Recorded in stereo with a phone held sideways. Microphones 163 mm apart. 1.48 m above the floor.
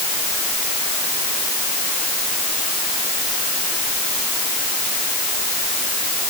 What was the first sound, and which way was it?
Only background noise.